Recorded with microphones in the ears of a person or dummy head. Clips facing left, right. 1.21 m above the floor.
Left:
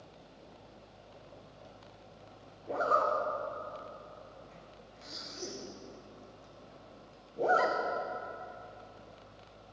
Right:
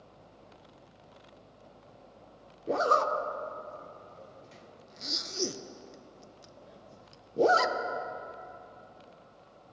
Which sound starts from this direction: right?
A zipper, at 2.7 s.